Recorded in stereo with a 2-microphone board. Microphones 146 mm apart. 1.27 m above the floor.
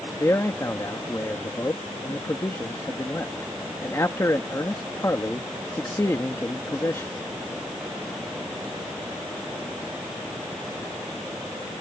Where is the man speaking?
20° left (ahead or behind).